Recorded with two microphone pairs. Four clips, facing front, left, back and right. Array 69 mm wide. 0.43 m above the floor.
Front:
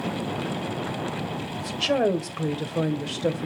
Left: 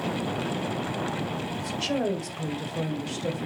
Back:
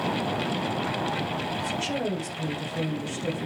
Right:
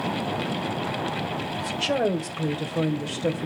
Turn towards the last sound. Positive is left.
turn(degrees=-25)